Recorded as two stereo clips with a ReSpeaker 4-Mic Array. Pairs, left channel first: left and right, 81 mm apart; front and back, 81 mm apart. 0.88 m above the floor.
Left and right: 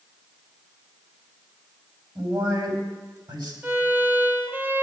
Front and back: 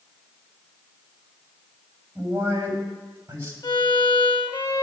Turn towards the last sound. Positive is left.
turn(degrees=-25)